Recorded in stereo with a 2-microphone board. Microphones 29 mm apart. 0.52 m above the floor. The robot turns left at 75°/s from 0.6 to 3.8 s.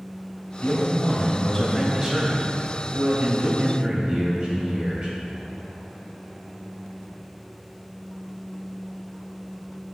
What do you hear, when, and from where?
0.6 s a man speaking: 90° left, 2.5 m; by 5.2 s 150° right, 2.5 m